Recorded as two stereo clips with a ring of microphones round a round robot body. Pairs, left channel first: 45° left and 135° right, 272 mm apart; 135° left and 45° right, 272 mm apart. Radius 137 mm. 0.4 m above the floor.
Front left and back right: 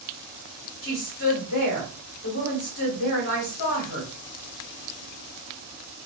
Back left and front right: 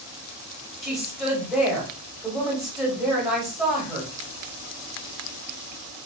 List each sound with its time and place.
0.8 s a woman speaking: 45° left, 2 m